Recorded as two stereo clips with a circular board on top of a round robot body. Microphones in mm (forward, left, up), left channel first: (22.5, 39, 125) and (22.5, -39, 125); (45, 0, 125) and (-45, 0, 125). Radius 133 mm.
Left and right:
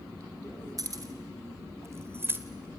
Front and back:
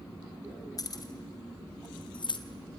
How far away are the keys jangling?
About 2.5 m.